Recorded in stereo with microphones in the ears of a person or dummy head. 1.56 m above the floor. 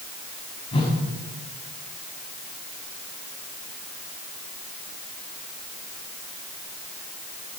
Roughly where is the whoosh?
Left.